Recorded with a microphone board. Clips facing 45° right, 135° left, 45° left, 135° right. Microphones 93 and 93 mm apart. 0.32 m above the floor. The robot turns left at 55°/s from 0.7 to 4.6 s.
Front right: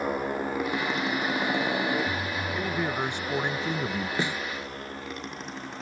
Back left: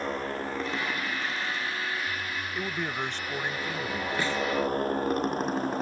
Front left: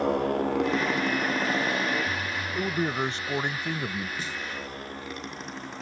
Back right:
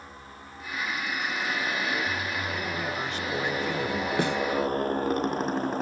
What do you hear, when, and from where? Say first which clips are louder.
0.0 s a motorcycle: front right 3 dB, front left 21 dB; 35° left; by 5.8 s straight behind
2.5 s a man speaking: front right 3 dB, front left 4 dB; 50° left; by 4.1 s 35° right
4.2 s a snare drum: back left 2 dB, back right 10 dB; 115° right; by 4.4 s 125° right